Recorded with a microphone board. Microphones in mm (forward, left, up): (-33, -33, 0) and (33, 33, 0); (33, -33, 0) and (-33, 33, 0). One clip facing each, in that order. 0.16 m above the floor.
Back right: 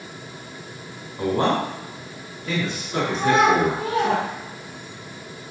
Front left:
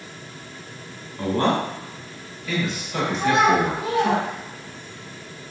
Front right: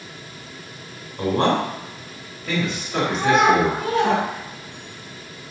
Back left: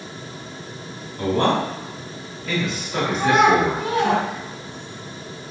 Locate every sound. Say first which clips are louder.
1.2 s a man speaking: even, even; 85° right, 1.1 m; by 4.1 s 140° right, 2 m
3.1 s a child speaking: back right 1 dB, back left 1 dB; 140° right, 1.6 m